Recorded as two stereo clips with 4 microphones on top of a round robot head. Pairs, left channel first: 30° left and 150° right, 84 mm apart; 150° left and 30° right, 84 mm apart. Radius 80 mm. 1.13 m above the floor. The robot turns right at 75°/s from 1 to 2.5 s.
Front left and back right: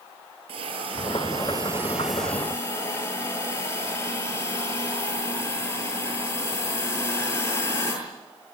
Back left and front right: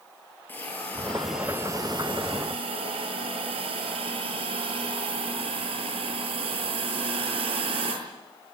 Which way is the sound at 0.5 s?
140° right.